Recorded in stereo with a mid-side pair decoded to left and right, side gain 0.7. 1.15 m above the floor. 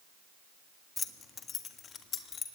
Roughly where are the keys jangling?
Ahead left.